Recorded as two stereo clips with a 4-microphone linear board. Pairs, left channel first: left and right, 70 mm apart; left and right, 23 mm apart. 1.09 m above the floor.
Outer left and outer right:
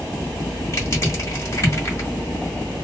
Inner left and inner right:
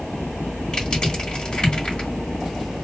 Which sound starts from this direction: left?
Crushing, at 0.7 s.